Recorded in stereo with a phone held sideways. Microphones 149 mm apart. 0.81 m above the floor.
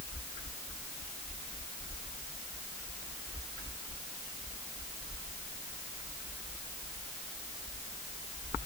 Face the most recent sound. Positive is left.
No sound to turn to.